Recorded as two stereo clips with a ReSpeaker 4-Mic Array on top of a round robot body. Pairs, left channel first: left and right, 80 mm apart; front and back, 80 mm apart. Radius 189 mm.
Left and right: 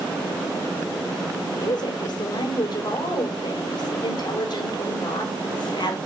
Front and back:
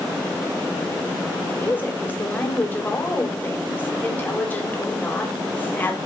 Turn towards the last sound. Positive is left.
turn(degrees=70)